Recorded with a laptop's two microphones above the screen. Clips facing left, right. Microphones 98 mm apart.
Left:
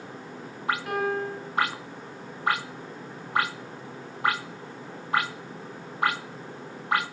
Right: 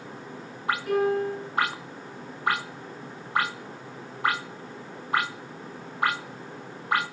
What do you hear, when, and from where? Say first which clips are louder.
0.9 s a piano: right 7 dB; 75° left (ahead or behind), 3.5 m